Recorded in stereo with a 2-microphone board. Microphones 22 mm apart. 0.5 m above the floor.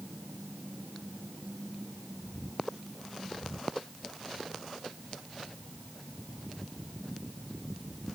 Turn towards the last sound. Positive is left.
No sound to turn to.